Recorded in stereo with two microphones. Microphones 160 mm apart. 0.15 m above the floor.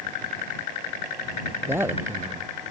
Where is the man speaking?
15° right (ahead or behind).